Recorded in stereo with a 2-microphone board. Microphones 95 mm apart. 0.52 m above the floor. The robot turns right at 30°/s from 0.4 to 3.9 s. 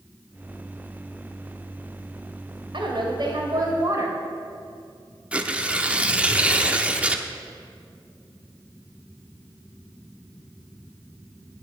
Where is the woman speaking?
75° right, 2.5 m; by 4.2 s 40° right, 2.5 m.